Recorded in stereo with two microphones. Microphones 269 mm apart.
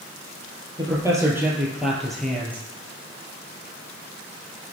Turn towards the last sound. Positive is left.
turn(degrees=5)  # may be behind; listen again after turning